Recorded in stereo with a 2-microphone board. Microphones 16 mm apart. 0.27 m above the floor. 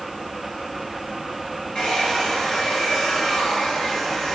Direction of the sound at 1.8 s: 75° left (ahead or behind).